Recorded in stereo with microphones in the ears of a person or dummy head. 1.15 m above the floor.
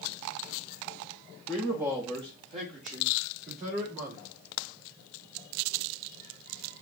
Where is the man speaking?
5° left (ahead or behind), 1.2 m; by 4.3 s 55° right (ahead or behind), 4.5 m.